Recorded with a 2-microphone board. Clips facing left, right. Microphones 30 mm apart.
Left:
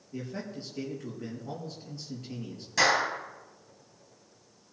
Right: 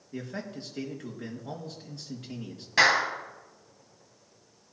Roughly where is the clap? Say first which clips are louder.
Right 3 dB; right.